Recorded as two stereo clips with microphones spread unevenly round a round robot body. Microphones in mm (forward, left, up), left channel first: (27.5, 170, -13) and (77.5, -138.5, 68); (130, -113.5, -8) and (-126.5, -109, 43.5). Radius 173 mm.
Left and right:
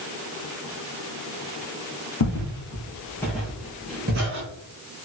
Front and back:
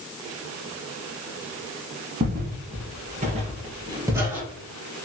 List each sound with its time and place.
2.2 s footsteps: 145° left, 1.3 m; by 4.5 s 105° right, 1.4 m